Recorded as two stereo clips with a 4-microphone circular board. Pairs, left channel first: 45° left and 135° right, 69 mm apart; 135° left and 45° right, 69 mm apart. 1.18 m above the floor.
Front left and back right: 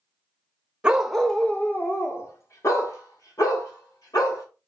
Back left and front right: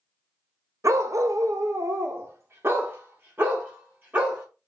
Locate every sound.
0.8 s a dog barking: 65° right, 0.8 m; by 4.4 s 20° left, 2.5 m